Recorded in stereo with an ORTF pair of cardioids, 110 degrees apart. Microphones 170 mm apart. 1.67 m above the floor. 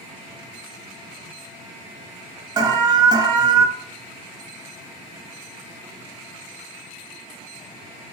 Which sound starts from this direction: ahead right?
An alarm, at 2.6 s.